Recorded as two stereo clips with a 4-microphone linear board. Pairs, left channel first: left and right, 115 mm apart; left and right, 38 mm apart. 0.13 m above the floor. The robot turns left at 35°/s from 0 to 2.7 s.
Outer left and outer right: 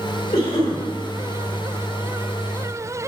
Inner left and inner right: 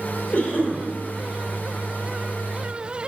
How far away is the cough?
About 3 m.